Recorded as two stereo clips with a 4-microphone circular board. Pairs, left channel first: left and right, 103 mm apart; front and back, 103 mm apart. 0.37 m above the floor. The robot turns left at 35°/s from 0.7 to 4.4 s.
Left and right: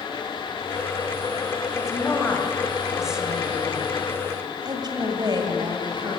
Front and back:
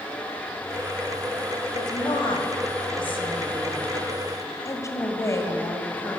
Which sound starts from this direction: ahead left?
A woman speaking, at 1.7 s.